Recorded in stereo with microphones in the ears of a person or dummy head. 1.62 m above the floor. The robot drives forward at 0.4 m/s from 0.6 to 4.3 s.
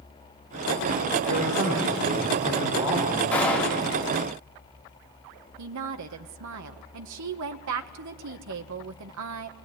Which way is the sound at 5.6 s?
70° right (ahead or behind).